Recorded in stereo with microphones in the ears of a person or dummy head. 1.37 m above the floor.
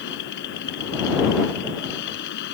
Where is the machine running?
60° left (ahead or behind).